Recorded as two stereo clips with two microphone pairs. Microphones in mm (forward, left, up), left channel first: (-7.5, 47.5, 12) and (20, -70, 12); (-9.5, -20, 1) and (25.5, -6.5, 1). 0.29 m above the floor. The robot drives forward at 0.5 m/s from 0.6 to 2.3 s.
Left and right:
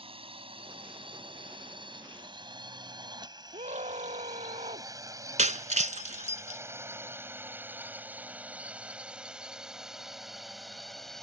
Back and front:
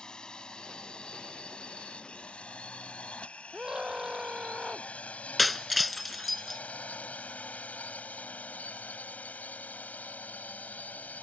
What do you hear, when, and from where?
0.0 s a drone: 100° right; by 11.2 s 170° right
3.5 s a scream: 55° right
5.4 s breaking glass: 70° right